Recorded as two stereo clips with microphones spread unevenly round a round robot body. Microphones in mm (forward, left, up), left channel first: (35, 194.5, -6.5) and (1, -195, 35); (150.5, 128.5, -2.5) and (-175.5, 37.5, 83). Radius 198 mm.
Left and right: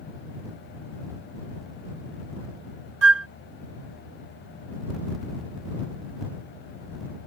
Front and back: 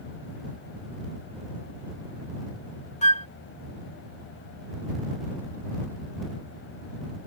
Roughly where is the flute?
Ahead right.